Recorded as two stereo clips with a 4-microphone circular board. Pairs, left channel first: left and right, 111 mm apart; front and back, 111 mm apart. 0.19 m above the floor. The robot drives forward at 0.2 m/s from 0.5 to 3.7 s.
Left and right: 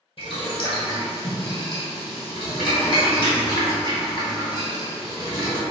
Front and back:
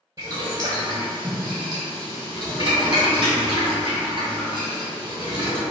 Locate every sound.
0.2 s boiling: 125° left, 1.2 m; by 5.6 s 145° left, 1.7 m